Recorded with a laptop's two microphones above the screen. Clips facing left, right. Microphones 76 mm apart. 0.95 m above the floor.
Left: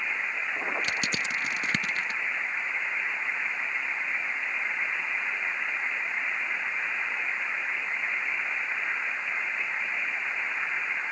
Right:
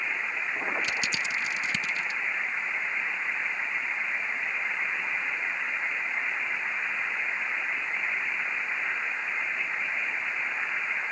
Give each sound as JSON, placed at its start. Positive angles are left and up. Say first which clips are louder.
{"t": 0.8, "sound": "crushing", "louder": "even", "side_deg": 55}